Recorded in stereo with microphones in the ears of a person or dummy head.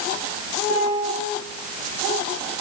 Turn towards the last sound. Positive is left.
turn(degrees=-60)  # may be behind; listen again after turning